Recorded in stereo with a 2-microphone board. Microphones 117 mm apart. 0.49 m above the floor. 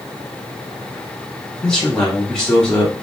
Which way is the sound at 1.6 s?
5° left (ahead or behind).